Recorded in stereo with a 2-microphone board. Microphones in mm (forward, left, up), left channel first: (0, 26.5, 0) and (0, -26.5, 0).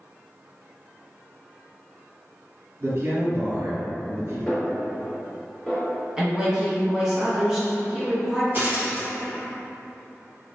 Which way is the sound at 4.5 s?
Centre (ahead or behind).